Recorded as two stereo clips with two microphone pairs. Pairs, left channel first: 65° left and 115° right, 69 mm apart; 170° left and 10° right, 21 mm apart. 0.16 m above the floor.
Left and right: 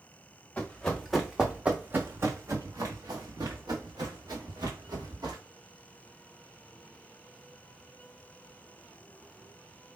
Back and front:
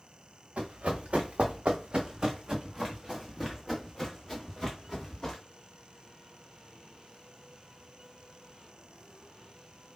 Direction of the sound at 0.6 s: 10° right.